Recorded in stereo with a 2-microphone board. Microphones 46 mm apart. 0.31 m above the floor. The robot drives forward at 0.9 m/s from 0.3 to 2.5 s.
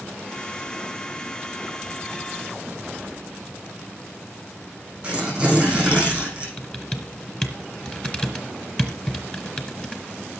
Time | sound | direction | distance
5.0 | tearing paper | 20° right (ahead or behind) | 9.5 m
6.6 | typing on a keyboard | 25° left (ahead or behind) | 2 m